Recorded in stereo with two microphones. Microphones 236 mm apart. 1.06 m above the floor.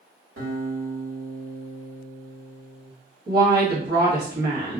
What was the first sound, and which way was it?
A guitar, 60° right (ahead or behind).